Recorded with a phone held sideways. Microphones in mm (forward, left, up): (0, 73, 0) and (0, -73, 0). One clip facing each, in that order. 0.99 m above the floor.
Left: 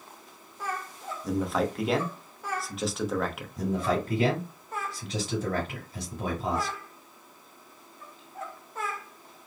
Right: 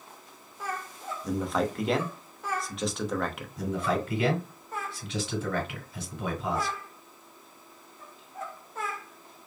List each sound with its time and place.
1.2 s a man speaking: centre (ahead or behind), 0.9 m
3.6 s a man speaking: 40° left (ahead or behind), 3 m